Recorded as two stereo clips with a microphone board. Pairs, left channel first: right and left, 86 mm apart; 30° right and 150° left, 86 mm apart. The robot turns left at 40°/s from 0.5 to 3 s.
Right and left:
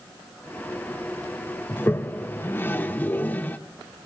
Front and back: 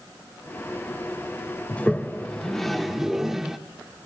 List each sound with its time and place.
1.7 s a toilet flushing: 75° right, 0.6 m; by 3.6 s 125° right, 0.6 m